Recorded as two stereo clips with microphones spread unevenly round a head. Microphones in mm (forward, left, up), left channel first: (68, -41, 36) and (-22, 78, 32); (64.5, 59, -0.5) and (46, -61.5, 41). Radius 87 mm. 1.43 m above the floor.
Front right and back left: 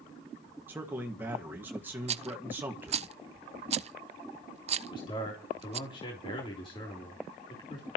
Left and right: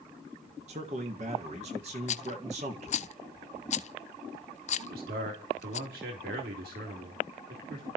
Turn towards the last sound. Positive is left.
turn(degrees=-115)